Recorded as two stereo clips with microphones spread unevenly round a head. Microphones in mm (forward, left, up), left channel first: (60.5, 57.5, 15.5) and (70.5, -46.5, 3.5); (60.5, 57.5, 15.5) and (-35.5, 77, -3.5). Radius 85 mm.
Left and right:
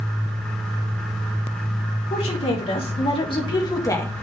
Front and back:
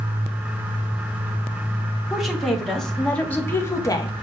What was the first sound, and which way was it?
A woman speaking, 80° left.